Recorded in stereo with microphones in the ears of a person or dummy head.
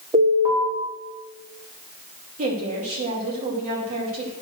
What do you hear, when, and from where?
0.1 s an alarm: 25° right (ahead or behind), 4 m
2.4 s a woman speaking: 45° right (ahead or behind), 2.5 m